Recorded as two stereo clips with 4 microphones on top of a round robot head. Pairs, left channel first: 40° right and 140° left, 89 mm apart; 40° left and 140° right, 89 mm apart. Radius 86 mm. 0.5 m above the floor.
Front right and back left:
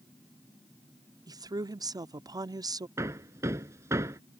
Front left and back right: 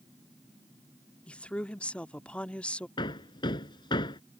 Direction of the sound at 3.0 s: 80° left.